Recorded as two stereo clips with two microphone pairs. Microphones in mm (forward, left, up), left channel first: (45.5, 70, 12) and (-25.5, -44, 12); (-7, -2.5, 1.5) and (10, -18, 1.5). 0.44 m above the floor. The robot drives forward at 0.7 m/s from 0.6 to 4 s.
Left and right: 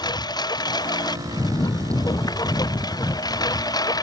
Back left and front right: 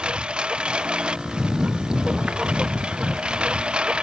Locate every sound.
0.0 s a lawn mower: straight ahead; by 4.0 s 5° right